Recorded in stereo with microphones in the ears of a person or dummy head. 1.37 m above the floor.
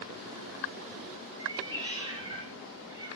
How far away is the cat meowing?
About 4.5 m.